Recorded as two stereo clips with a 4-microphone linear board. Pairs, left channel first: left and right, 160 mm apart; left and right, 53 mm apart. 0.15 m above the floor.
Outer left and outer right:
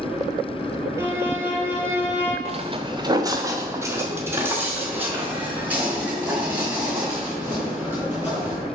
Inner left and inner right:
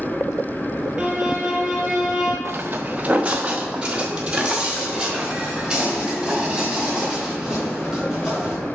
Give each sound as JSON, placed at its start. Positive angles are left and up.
{"t": 1.0, "sound": "a violin", "side_deg": -15, "distance_m": 2.0}
{"t": 2.5, "sound": "footsteps", "side_deg": -45, "distance_m": 0.6}